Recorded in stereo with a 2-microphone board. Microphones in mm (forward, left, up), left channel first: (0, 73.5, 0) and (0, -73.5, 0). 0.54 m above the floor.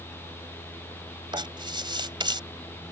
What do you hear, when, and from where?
1.3 s writing: 30° right (ahead or behind)